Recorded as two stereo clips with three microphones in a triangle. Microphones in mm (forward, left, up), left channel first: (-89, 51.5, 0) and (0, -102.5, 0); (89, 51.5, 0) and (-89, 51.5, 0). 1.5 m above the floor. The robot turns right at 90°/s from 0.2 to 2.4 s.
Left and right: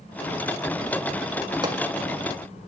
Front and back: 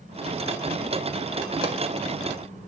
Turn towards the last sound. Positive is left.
turn(degrees=-60)